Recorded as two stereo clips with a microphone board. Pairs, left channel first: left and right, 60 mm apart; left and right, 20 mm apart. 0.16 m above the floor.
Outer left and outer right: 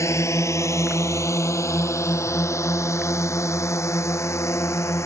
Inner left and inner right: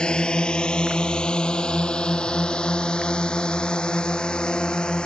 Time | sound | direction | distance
0.0 | a drone | 65° left (ahead or behind) | ?